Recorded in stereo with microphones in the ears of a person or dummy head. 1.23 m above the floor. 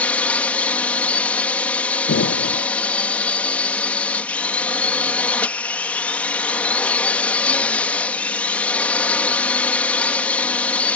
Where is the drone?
10° left (ahead or behind).